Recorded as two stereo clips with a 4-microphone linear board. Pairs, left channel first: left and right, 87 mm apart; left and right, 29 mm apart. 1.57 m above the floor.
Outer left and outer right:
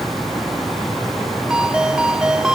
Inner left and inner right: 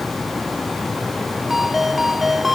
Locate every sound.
1.5 s a ringtone: 10° right (ahead or behind)